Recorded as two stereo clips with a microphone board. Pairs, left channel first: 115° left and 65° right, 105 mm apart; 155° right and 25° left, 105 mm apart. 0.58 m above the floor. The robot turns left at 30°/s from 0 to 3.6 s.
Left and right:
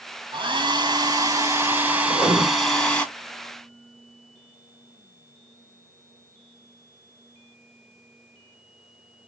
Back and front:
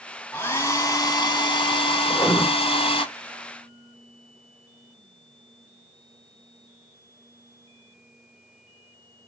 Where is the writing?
80° right, 1.3 m; by 2.4 s 90° right, 1.3 m.